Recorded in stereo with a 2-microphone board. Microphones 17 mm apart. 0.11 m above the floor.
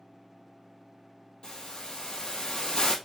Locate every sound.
1.4 s a hiss: 60° left (ahead or behind), 2.5 m